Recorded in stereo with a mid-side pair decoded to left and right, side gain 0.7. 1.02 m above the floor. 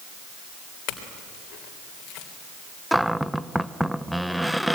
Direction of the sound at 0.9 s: 60° left.